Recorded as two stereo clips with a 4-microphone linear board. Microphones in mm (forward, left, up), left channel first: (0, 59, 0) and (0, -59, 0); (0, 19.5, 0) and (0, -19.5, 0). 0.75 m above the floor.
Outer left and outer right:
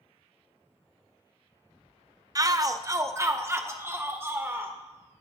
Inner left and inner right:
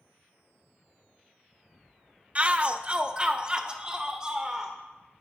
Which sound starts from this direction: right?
A shout, at 2.4 s.